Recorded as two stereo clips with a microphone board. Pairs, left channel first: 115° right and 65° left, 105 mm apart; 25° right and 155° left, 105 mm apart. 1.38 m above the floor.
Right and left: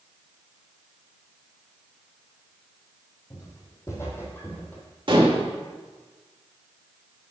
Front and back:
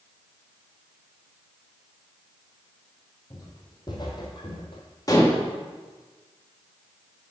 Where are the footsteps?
65° right, 2.5 m; by 4.8 s 40° right, 2 m.